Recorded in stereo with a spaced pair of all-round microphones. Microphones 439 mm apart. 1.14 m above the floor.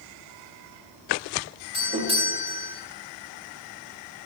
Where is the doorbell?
15° right (ahead or behind), 1.8 m.